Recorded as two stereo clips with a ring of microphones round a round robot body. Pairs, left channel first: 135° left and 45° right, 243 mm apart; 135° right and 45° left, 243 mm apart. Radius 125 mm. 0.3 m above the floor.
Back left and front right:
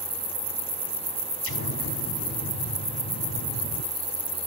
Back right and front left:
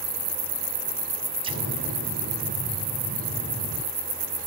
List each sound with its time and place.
1.4 s an explosion: 110° left, 2.5 m